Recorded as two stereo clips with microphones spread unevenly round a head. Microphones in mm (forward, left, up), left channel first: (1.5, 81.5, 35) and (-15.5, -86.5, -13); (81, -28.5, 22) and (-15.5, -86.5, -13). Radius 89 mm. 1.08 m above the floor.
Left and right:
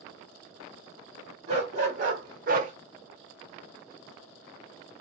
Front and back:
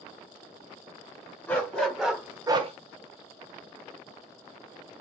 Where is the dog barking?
35° right, 1.6 m; by 2.7 s 145° right, 0.7 m.